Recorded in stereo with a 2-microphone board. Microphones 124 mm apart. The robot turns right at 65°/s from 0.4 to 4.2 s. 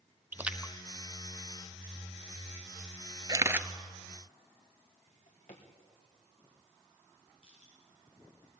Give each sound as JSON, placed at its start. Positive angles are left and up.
{"t": 0.3, "sound": "a splash", "side_deg": -15, "distance_m": 0.7}
{"t": 3.3, "sound": "a camera shutter", "side_deg": -35, "distance_m": 0.7}
{"t": 5.1, "sound": "a drawer", "side_deg": 75, "distance_m": 4.0}
{"t": 7.4, "sound": "crushing", "side_deg": 50, "distance_m": 10.0}